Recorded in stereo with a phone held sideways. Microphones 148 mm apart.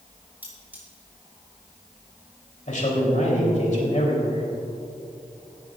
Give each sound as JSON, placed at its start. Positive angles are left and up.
{"t": 0.4, "sound": "cutlery clinking", "side_deg": -10, "distance_m": 4.0}
{"t": 2.7, "sound": "a man speaking", "side_deg": 60, "distance_m": 3.5}